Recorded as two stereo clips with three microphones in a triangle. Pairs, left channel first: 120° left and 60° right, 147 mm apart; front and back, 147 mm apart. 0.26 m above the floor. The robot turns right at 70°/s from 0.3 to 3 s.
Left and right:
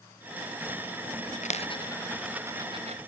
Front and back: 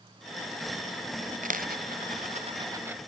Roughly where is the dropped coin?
Behind left.